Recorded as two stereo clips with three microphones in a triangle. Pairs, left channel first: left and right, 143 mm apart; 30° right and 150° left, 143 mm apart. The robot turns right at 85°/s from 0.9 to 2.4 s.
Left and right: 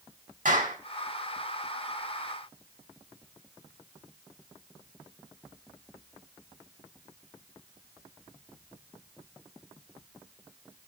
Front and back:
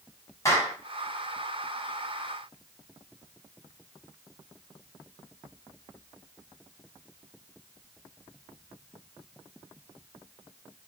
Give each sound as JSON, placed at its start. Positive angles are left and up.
{"t": 0.5, "sound": "a clap", "azimuth_deg": -100, "distance_m": 4.5}